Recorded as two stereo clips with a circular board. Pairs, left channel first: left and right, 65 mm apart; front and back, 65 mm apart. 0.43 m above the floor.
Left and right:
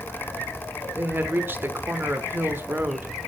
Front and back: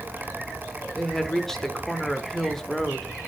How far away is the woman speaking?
About 0.8 m.